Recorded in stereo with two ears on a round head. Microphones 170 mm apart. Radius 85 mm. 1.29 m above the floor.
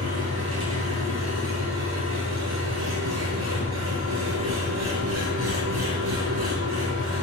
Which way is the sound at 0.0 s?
80° right.